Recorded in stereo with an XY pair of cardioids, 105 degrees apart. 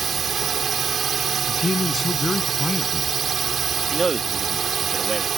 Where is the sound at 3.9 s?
20° right.